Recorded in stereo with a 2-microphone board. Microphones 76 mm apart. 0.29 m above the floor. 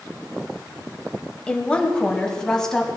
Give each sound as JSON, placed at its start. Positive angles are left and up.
{"t": 1.5, "sound": "a woman speaking", "side_deg": 15, "distance_m": 1.2}